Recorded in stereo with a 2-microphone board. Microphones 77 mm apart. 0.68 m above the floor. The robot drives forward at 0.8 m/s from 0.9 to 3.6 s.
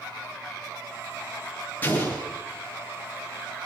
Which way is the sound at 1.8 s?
25° left (ahead or behind).